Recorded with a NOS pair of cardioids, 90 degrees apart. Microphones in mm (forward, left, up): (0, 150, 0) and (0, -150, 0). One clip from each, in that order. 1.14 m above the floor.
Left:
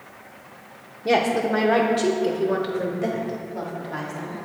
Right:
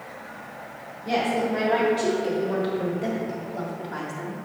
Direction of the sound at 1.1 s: 65° left.